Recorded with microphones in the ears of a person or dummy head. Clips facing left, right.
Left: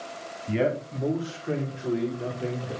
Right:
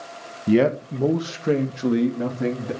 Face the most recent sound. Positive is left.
turn(degrees=-85)